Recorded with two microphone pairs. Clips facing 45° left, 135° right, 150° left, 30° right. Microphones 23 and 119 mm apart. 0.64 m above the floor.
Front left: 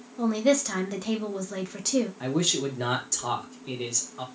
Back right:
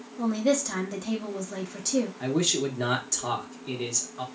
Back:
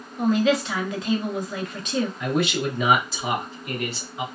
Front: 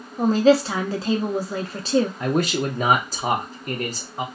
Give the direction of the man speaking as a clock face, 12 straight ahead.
2 o'clock.